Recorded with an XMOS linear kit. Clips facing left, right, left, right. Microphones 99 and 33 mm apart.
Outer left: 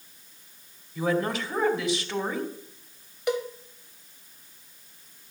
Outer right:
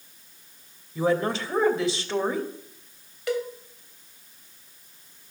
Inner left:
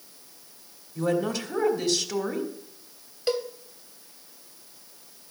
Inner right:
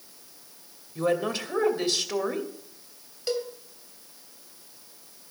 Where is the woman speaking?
30° right (ahead or behind), 2.5 m.